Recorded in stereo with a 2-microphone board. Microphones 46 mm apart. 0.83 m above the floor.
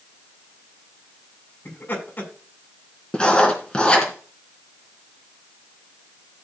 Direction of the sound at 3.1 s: 20° left (ahead or behind).